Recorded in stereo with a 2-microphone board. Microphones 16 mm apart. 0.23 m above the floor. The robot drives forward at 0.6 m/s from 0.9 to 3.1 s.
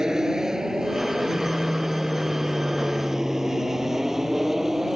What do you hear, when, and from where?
0.0 s an aircraft: 35° right (ahead or behind); by 5.0 s 20° right (ahead or behind)